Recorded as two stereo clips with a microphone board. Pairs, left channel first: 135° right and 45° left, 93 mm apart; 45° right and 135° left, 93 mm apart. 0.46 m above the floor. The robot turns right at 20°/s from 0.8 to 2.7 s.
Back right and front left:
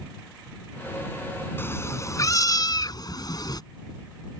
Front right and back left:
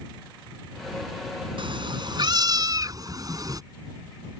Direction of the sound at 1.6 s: 160° left.